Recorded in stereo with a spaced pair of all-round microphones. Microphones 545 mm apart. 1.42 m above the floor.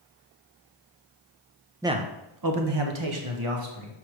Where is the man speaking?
5° right (ahead or behind), 0.6 m; by 3.9 s 70° right (ahead or behind), 1.6 m.